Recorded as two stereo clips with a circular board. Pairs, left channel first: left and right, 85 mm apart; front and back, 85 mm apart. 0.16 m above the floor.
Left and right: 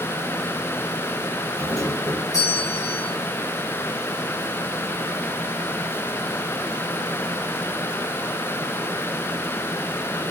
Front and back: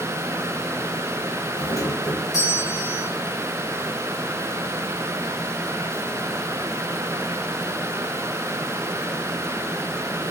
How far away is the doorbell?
About 7 m.